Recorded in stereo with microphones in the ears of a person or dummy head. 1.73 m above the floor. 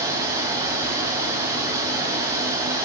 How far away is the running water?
About 2.5 m.